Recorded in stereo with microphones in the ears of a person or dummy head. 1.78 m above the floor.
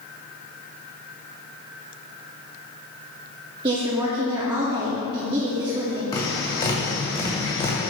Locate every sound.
3.6 s a woman speaking: 20° right (ahead or behind), 0.6 m
6.1 s tapping: 30° left (ahead or behind), 1.7 m